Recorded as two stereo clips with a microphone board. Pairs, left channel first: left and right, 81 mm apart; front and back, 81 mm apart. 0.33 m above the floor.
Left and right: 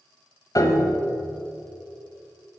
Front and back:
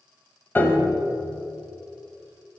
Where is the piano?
60° left, 0.9 m.